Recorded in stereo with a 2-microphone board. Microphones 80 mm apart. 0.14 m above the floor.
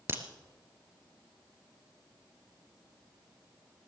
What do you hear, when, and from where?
0.1 s a crack: 30° right (ahead or behind), 1.6 m